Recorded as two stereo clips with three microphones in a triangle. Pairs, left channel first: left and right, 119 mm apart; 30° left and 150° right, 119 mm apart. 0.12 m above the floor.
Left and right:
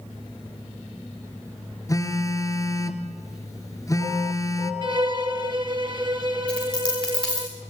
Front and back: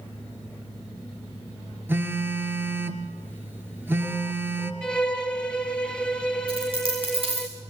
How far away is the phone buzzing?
About 2.5 m.